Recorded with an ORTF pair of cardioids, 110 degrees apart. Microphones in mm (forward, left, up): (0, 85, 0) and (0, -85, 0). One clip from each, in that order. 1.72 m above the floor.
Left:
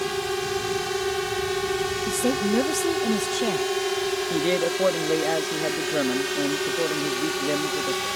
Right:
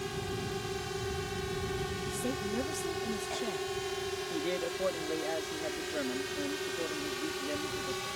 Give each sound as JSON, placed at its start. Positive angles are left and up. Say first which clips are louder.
{"t": 0.0, "sound": "a drone", "louder": "left 11 dB", "azimuth_deg": 65}
{"t": 2.1, "sound": "a woman speaking", "louder": "left 11 dB", "azimuth_deg": 60}
{"t": 4.3, "sound": "a man speaking", "louder": "left 11 dB", "azimuth_deg": 70}